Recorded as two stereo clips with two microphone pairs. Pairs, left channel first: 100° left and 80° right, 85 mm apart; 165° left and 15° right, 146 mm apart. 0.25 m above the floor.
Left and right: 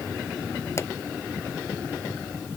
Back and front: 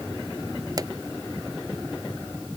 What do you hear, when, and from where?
0.8 s a pop: 45° left